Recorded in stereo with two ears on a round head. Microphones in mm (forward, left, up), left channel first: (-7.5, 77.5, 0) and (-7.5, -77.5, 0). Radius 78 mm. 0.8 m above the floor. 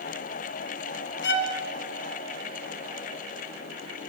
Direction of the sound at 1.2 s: 75° left (ahead or behind).